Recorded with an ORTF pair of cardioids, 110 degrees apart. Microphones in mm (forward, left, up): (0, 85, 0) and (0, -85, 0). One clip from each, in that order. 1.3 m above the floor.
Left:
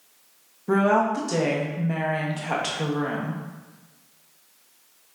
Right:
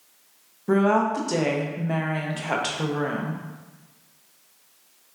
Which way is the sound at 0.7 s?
10° right.